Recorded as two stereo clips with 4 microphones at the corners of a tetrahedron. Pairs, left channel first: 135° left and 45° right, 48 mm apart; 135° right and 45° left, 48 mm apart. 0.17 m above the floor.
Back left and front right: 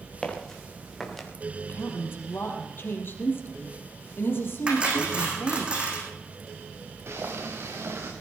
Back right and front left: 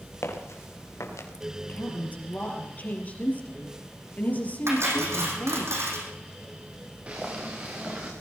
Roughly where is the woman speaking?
Behind.